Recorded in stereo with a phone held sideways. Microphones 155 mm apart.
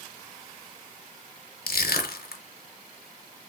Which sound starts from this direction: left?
Crushing, at 1.7 s.